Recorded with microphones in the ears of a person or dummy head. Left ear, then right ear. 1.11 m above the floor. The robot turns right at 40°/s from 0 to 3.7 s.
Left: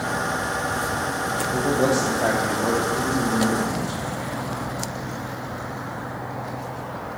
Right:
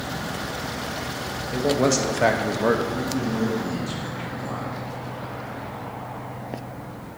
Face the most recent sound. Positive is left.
turn(degrees=-120)